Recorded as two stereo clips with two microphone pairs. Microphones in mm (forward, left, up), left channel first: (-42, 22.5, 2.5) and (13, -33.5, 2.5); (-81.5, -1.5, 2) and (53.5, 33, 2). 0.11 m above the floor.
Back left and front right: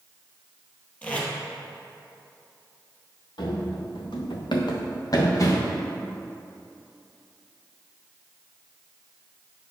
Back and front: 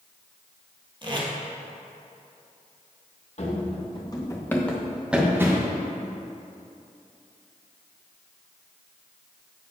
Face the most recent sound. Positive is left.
turn(degrees=80)